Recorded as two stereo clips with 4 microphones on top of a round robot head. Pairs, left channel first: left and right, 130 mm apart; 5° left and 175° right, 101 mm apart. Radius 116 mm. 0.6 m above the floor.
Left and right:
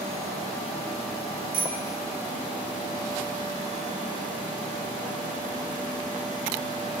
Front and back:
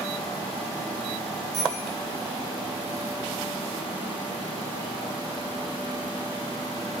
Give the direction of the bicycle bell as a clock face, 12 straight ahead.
3 o'clock.